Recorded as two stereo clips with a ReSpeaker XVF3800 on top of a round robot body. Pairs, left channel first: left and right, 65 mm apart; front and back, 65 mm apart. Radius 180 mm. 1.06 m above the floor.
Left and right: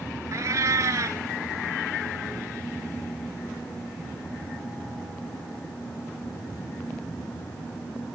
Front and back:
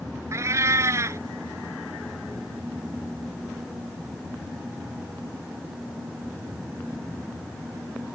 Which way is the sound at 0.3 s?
140° right.